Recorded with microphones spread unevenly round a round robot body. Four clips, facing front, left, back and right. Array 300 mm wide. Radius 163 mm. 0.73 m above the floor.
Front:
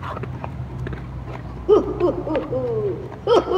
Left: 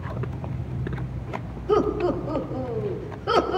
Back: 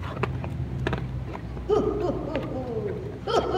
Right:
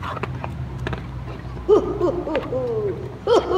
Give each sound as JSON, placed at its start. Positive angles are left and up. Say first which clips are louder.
{"t": 1.7, "sound": "laughter", "louder": "right 5 dB, front 7 dB", "azimuth_deg": -40, "distance_m": 3.5}